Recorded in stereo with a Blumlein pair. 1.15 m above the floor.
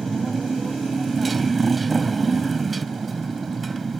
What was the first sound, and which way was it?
A motorcycle, 15° right.